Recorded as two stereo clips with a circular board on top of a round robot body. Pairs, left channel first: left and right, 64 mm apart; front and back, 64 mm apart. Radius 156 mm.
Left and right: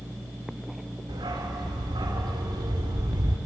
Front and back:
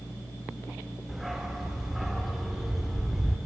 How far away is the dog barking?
About 0.9 m.